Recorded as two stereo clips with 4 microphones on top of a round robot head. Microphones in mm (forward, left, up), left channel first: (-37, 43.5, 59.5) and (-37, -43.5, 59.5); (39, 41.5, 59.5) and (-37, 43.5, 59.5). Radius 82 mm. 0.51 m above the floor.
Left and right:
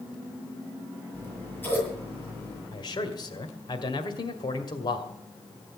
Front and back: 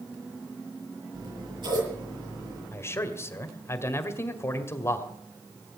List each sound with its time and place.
1.1 s scissors: 155° left, 8.5 m
2.7 s a man speaking: 50° left, 2.0 m